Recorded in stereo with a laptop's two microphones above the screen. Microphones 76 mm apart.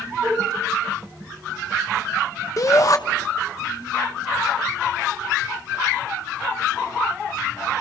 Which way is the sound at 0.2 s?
55° right (ahead or behind).